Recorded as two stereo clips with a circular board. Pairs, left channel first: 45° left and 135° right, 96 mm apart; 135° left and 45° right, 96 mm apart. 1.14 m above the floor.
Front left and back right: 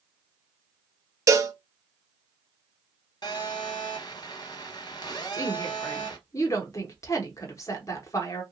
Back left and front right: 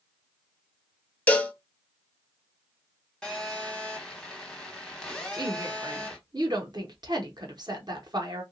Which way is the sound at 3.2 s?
55° left.